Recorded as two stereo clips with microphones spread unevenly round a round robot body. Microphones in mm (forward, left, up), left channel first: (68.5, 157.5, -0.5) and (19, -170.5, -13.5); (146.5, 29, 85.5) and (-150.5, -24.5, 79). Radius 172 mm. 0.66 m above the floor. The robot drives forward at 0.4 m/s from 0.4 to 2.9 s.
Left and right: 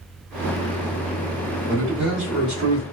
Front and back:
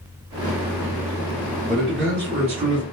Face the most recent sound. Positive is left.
turn(degrees=170)